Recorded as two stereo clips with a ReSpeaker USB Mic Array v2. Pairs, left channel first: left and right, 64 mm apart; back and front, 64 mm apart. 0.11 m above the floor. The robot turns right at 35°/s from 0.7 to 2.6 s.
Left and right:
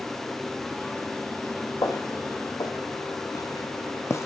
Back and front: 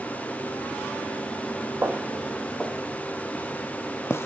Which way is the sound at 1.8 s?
65° left.